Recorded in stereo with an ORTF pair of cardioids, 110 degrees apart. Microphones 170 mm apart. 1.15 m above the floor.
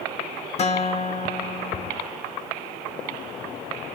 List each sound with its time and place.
0.6 s a guitar: 40° left, 1.0 m